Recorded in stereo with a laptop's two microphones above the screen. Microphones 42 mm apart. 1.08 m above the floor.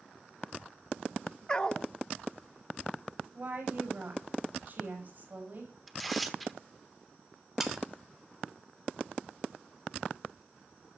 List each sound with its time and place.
1.5 s a dog barking: 20° left (ahead or behind), 0.8 m
3.3 s a woman speaking: 40° right (ahead or behind), 6 m
5.9 s tearing paper: 5° left (ahead or behind), 1.1 m
7.6 s sawing: 10° right (ahead or behind), 2.5 m